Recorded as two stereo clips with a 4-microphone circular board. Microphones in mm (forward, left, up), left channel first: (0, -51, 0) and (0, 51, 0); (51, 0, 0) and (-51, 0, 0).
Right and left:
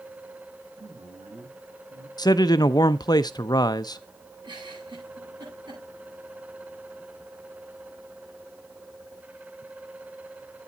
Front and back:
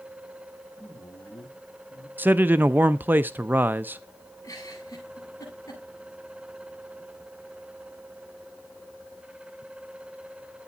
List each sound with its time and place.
0.8 s a man speaking: 65° left, 7 m
2.2 s a man speaking: 115° right, 0.5 m
4.4 s a giggle: 55° left, 9.5 m